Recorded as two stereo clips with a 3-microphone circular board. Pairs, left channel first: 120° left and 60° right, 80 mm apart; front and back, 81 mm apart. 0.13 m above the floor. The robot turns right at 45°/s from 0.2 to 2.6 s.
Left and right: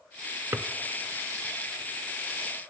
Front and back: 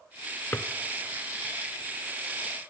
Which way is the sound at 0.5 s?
35° right.